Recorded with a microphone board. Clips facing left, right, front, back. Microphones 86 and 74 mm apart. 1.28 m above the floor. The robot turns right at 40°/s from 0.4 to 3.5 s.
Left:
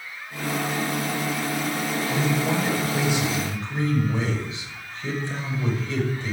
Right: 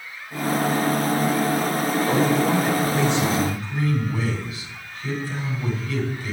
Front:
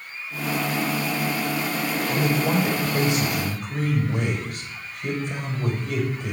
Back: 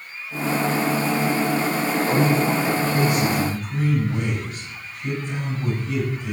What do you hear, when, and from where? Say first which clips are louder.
2.1 s a man speaking: right 5 dB, back 2 dB; 30° right, 6.5 m; by 6.3 s 30° left, 6.5 m